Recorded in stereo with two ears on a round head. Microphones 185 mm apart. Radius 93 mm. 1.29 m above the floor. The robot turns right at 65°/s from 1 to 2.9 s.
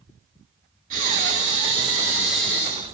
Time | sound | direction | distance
0.9 | breathing | 90° right | 1.3 m